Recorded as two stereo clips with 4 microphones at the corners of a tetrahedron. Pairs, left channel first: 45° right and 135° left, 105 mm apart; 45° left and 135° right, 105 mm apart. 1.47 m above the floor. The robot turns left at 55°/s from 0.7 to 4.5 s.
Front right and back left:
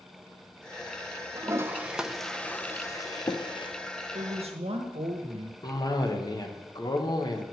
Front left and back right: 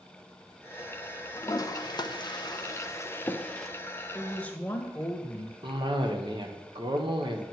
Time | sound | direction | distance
1.4 | a toilet flushing | 90° left | 0.5 m
4.2 | a woman speaking | 140° left | 1.3 m
5.6 | a cough | 95° right | 1.1 m